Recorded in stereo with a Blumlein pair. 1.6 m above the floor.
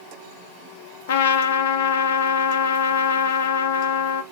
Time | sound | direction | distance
1.1 | a trumpet | 55° left | 1.1 m